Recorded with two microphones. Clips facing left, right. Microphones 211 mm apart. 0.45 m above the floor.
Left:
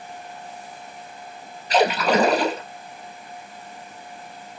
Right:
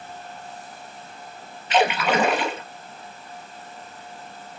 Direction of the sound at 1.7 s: 40° left (ahead or behind).